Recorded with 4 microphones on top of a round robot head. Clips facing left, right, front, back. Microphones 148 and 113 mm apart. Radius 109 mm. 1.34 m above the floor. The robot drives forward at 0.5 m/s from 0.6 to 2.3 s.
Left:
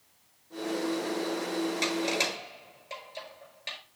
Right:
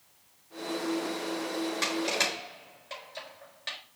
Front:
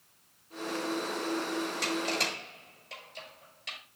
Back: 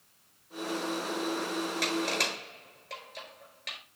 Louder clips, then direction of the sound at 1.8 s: Left 1 dB, back 1 dB; 160° left.